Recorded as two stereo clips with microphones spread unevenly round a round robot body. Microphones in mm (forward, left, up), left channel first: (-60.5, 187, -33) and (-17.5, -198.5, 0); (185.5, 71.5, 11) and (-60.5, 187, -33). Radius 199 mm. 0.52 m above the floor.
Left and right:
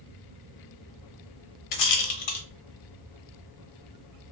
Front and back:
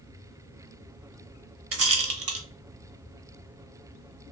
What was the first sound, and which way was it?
A rattle, 115° left.